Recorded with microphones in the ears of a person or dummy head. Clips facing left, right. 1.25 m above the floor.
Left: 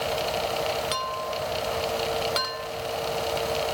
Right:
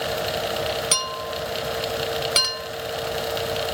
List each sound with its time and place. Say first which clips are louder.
0.9 s a clink: right 1 dB; 40° right (ahead or behind)